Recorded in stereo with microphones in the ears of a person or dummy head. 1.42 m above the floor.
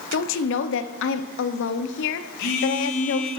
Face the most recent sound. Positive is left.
turn(degrees=65)  # may be behind; listen again after turning